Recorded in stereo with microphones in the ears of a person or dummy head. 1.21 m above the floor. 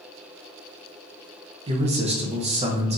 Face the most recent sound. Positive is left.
turn(degrees=-30)  # may be behind; listen again after turning